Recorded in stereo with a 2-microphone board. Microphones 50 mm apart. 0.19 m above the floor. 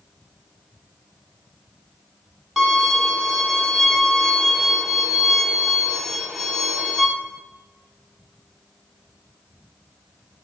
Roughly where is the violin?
Centre.